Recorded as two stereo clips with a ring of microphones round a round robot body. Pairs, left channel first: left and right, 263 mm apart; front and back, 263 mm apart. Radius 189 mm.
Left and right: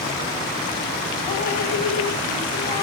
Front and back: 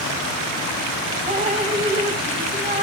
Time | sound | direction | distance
1.3 | dripping | 110° left | 0.9 m